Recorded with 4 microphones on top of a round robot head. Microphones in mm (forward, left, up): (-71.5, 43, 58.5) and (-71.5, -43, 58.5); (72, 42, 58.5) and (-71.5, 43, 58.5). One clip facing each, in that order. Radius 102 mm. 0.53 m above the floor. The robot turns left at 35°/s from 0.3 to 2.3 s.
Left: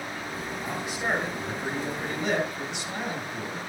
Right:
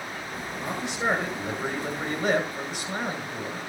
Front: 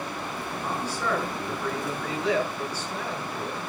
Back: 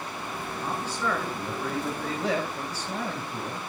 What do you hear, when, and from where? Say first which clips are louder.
0.6 s a man speaking: right 4 dB, even; 70° right, 9.5 m; by 3.6 s 130° right, 9.5 m